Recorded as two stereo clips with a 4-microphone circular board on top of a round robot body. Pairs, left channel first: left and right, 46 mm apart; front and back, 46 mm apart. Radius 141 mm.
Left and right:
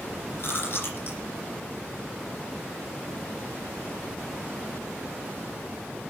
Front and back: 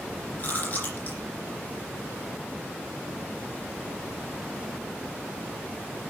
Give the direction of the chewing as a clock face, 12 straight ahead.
10 o'clock.